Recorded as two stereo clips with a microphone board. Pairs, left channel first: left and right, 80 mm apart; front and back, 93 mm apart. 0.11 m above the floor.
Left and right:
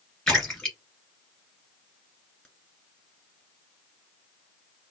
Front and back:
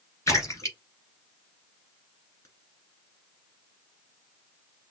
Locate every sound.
0.3 s a splash: 5° left, 1.9 m